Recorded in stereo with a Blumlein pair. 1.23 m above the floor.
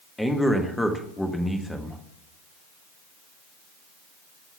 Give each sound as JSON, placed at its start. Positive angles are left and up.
{"t": 0.2, "sound": "a man speaking", "azimuth_deg": 5, "distance_m": 1.4}